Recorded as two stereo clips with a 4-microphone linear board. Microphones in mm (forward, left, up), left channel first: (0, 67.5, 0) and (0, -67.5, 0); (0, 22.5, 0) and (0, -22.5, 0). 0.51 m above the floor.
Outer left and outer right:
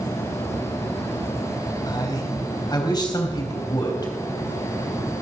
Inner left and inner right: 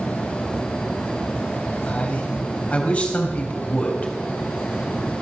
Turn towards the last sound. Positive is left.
turn(degrees=30)  # may be behind; listen again after turning